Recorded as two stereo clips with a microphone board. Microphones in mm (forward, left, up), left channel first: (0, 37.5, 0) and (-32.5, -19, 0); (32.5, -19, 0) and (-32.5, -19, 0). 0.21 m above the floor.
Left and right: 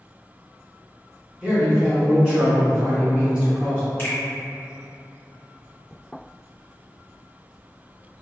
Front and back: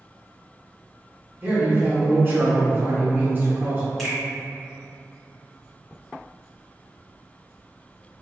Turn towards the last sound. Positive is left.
turn(degrees=85)